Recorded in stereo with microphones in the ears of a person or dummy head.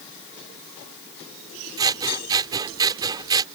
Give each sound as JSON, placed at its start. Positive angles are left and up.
{"t": 1.8, "sound": "scissors", "side_deg": -25}